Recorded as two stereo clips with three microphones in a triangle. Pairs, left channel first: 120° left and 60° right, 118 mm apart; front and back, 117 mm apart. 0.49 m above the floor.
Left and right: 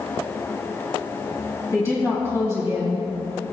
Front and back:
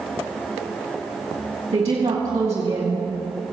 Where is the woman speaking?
Straight behind, 2.5 m.